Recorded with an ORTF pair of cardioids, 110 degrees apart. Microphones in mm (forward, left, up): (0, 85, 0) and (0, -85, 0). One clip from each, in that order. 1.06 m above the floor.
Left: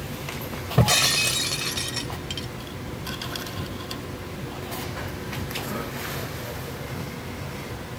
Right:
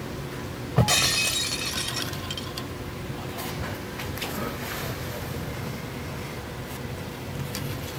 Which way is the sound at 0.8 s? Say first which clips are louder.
Left 2 dB; 10° left.